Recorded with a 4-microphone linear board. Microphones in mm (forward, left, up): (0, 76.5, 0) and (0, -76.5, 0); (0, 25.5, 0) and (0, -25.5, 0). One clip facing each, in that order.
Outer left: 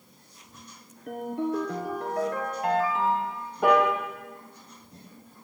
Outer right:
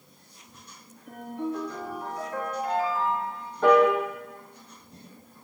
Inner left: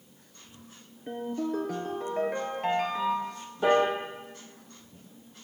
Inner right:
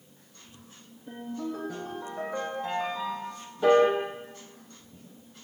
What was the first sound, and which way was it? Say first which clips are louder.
A ringtone: outer left 3 dB, inner left 4 dB; 70° left (ahead or behind).